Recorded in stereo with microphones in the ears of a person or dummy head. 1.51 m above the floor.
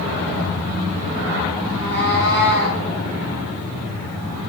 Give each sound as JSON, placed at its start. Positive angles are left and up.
{"t": 1.7, "sound": "a cat meowing", "side_deg": -35, "distance_m": 5.0}